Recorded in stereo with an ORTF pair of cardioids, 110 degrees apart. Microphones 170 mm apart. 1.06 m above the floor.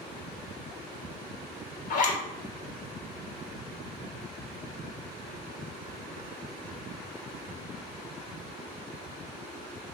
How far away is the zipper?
About 0.7 m.